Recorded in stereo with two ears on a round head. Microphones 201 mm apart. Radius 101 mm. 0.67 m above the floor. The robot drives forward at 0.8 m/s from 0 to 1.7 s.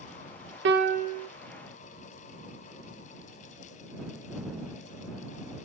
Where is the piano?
55° right (ahead or behind), 0.5 m; by 1.3 s 30° right (ahead or behind), 0.9 m.